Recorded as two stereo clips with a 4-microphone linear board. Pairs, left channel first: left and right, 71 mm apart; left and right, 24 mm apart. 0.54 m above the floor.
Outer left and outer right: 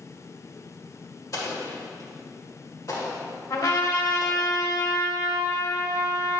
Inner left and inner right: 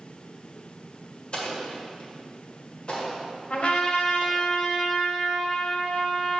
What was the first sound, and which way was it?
An explosion, 50° left (ahead or behind).